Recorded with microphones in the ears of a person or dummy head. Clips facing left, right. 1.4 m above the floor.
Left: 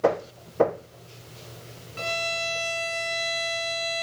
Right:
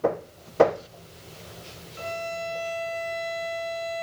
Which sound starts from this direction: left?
A violin, at 2.0 s.